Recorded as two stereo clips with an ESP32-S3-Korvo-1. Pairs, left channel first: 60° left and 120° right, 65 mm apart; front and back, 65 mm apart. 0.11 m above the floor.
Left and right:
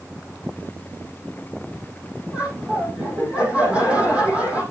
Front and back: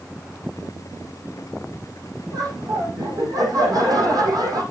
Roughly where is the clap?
No clap in this recording.